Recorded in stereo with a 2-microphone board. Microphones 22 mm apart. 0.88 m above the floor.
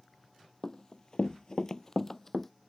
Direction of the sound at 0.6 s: 30° left (ahead or behind).